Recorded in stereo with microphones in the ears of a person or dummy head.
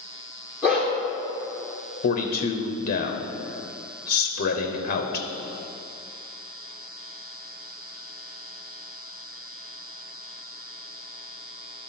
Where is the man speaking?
50° left (ahead or behind), 0.9 m.